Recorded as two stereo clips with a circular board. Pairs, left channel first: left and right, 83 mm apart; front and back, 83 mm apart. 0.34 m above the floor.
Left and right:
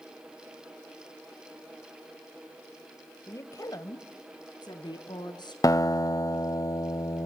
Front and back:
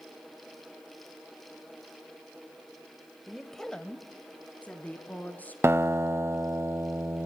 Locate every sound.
3.3 s a woman speaking: 90° left, 1.0 m; by 5.5 s 70° left, 3.5 m
5.6 s a guitar: 125° left, 0.7 m